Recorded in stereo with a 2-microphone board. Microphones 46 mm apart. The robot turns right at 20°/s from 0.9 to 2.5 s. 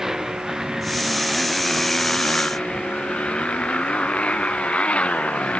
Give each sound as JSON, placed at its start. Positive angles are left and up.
{"t": 0.0, "sound": "a motorcycle", "side_deg": -5}